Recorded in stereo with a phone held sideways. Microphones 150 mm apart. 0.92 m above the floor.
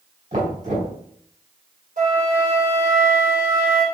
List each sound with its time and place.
0.3 s knocking: 55° right (ahead or behind), 3.5 m
2.0 s a flute: 75° right (ahead or behind), 4 m